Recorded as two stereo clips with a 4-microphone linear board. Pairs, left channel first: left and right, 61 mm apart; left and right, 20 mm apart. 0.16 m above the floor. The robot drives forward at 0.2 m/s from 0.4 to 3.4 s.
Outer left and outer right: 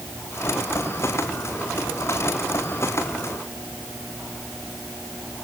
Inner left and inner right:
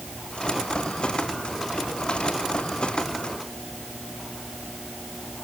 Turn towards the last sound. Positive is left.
No sound to turn to.